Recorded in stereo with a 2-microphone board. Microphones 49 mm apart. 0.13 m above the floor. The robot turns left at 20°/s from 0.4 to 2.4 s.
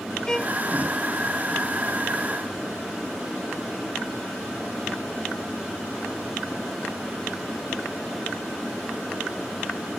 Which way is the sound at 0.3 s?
15° left (ahead or behind).